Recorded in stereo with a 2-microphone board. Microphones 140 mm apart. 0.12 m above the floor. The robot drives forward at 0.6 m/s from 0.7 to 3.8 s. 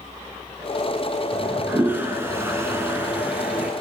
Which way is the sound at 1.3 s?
10° right (ahead or behind).